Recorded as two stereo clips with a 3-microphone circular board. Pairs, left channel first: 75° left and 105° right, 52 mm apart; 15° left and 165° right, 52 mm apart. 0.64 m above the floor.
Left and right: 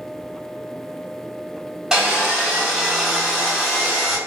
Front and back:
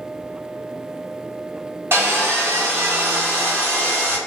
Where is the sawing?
Straight behind, 1.6 m.